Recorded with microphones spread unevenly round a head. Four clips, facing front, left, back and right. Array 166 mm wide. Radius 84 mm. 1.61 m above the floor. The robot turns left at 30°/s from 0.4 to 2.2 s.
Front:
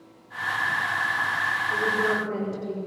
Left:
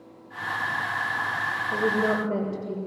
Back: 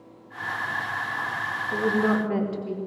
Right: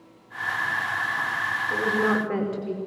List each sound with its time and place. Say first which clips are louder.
1.7 s a woman speaking: even, back 4 dB; 85° right, 5 m; by 2.8 s 100° right, 5 m